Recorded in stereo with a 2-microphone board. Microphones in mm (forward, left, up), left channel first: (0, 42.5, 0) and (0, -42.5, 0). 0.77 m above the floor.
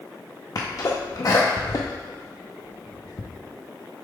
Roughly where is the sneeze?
Left.